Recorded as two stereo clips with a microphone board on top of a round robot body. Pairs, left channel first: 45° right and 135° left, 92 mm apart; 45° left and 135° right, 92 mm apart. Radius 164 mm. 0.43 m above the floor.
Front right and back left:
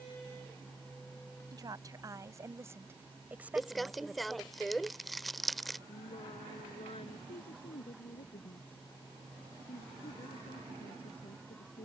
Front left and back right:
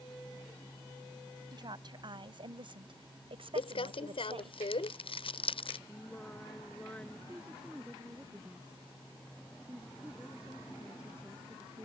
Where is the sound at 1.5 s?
175° right; by 4.5 s 130° right.